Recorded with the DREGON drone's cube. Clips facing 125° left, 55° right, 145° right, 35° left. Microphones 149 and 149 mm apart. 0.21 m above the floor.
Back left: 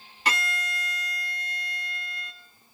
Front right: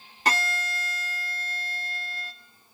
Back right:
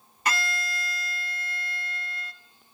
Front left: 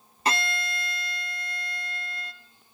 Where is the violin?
20° right, 0.9 m.